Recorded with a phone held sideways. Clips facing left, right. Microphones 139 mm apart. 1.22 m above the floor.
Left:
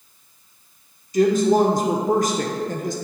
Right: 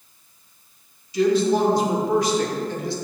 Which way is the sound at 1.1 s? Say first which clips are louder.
Left 2 dB; 45° left (ahead or behind).